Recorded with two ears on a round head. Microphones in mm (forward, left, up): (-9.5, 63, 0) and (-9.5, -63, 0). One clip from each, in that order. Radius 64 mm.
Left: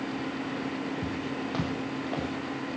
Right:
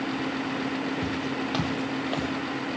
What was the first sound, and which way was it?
Footsteps, 60° right (ahead or behind).